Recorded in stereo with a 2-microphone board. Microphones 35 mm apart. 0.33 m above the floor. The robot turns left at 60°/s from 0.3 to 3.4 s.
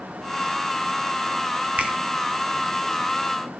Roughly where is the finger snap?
Right.